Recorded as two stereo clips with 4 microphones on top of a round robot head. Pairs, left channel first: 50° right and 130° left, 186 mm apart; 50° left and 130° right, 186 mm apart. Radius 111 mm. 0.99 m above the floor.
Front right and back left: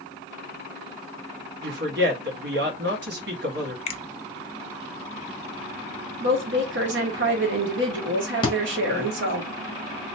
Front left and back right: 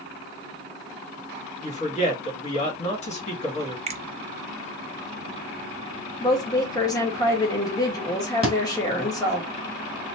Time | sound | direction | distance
1.6 | a woman speaking | 105° left | 1.6 m
3.9 | a finger snap | 90° right | 0.8 m
6.2 | a woman speaking | 120° left | 1.4 m
8.4 | a thud | 5° left | 1.1 m